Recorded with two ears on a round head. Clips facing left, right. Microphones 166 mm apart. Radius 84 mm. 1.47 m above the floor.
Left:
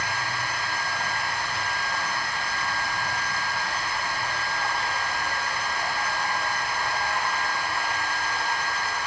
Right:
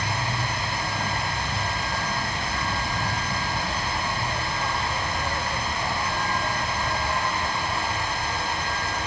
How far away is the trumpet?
I don't hear a trumpet.